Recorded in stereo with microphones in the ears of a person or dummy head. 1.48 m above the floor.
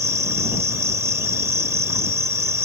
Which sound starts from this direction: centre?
An insect, at 0.0 s.